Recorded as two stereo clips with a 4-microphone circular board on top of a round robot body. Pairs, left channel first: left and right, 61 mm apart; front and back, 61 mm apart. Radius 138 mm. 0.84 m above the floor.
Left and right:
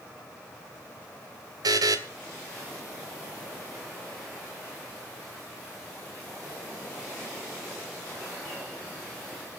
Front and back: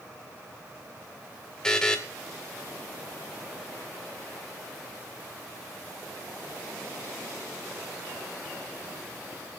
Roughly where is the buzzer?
Right.